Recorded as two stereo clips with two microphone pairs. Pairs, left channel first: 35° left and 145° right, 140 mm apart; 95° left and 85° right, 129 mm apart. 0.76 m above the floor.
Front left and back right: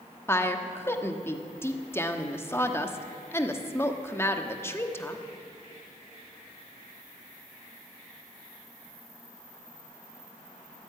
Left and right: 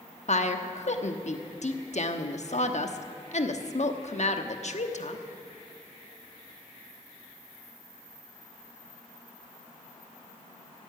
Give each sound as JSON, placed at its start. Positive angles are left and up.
{"t": 0.3, "sound": "a woman speaking", "azimuth_deg": 105, "distance_m": 1.1}